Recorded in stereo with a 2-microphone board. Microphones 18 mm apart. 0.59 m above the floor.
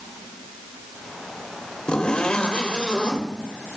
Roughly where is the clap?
I don't hear a clap.